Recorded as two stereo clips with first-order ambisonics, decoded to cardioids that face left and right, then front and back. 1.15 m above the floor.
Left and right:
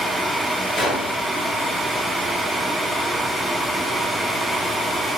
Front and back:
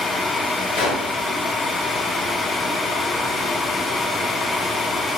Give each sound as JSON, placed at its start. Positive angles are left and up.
{"t": 0.8, "sound": "a gunshot", "azimuth_deg": 15, "distance_m": 0.7}